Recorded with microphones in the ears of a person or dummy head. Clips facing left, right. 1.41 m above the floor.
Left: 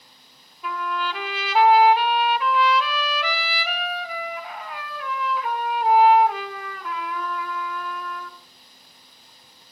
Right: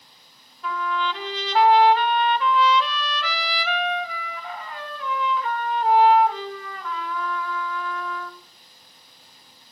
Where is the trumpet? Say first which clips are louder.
Right 1 dB; 5° left (ahead or behind), 1.3 m.